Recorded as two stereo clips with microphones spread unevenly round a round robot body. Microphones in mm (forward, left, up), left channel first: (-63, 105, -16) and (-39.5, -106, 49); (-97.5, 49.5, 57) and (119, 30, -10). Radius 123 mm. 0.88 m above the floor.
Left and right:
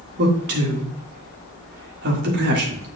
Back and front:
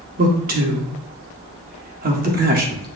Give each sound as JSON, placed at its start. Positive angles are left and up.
{"t": 0.2, "sound": "a man speaking", "azimuth_deg": -35, "distance_m": 1.7}